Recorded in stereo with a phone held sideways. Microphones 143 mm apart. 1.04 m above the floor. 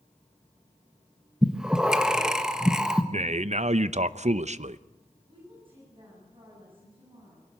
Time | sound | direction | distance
1.4 | breathing | 5° right (ahead or behind) | 1.4 m
3.1 | a man speaking | 60° right (ahead or behind) | 0.7 m
5.3 | a woman speaking | 40° right (ahead or behind) | 9 m